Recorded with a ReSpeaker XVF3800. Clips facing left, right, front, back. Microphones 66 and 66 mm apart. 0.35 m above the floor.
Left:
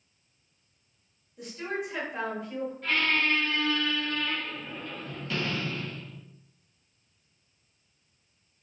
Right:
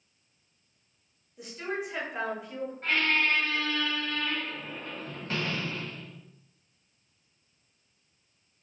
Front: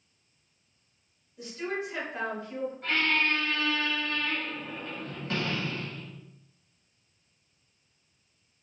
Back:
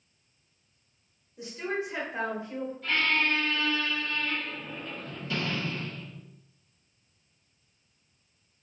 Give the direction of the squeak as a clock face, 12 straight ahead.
1 o'clock.